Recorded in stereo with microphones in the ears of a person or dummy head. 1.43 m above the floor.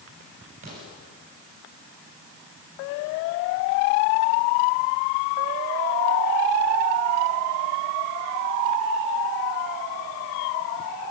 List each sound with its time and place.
0.6 s an explosion: 45° right (ahead or behind), 8 m